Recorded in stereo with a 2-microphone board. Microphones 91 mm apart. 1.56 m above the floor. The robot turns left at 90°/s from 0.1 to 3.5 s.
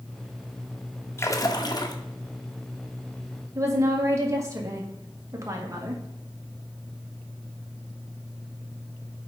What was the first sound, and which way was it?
A splash, 140° left.